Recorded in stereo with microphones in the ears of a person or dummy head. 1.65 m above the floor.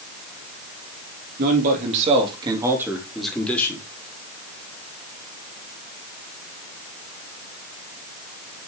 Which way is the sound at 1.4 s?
55° right (ahead or behind).